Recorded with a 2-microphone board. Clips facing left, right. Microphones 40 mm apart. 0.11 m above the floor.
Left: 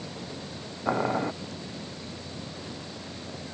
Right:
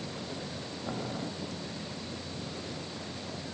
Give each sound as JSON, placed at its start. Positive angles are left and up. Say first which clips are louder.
{"t": 0.8, "sound": "boiling", "louder": "left 11 dB", "side_deg": 50}